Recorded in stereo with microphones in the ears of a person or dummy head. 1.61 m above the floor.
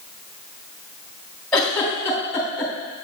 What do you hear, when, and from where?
1.5 s a giggle: 5° left (ahead or behind), 3 m